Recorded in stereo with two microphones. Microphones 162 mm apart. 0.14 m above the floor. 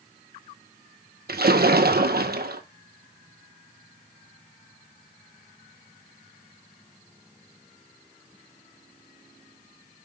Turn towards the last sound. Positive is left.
turn(degrees=-75)  # may be behind; listen again after turning